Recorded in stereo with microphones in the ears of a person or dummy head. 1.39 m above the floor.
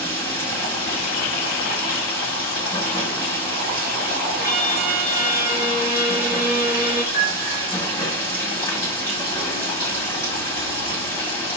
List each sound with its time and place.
0.0 s running water: 20° left (ahead or behind), 1.6 m
4.4 s a violin: 15° right (ahead or behind), 0.9 m
7.1 s a piano: 35° left (ahead or behind), 1.6 m